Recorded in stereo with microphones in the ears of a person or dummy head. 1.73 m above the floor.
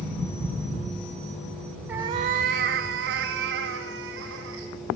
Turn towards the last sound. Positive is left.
turn(degrees=-70)  # may be behind; listen again after turning